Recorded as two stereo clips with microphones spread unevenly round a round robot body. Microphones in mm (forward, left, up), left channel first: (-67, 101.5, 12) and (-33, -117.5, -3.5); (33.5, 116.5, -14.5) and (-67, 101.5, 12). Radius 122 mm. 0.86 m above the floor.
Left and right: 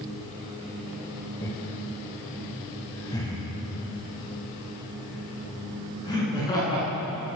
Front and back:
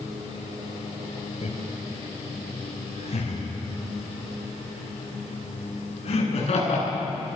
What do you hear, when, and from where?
1.4 s laughter: 20° left, 4.5 m; by 7.4 s 25° left, 12.5 m